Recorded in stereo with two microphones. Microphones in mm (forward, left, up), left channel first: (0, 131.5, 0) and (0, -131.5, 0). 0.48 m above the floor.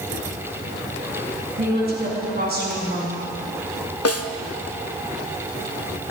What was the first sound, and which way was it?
A woman speaking, 40° right (ahead or behind).